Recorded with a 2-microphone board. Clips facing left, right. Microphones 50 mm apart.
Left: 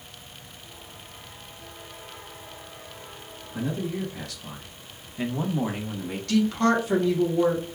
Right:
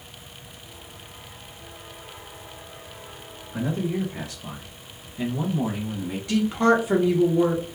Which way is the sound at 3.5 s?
40° right (ahead or behind).